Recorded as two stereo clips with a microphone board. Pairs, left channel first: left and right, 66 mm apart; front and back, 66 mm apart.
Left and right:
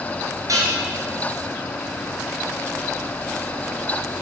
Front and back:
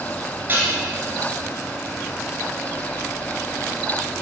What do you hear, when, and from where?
0.5 s dishes clattering: 120° right, 4 m